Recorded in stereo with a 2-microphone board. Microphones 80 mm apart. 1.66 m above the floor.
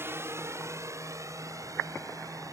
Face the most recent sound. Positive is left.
turn(degrees=-45)  # may be behind; listen again after turning